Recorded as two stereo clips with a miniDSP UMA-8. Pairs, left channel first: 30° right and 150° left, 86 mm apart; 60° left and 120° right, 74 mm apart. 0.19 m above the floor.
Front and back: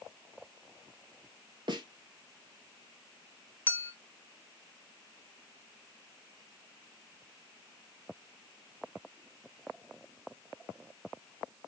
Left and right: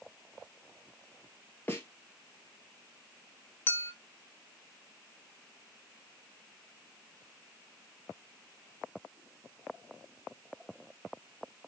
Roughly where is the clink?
Ahead left.